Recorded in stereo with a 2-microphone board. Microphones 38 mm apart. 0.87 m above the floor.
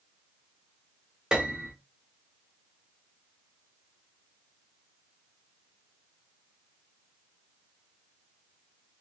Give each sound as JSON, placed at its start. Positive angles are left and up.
{"t": 1.3, "sound": "a piano", "side_deg": -20, "distance_m": 0.7}